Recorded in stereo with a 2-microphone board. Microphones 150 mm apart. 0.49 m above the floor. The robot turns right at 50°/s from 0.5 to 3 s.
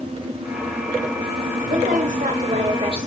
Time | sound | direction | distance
1.7 | a woman speaking | 110° right | 1.5 m